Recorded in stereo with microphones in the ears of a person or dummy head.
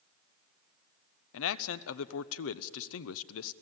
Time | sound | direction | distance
1.3 | a man speaking | 75° left (ahead or behind) | 0.9 m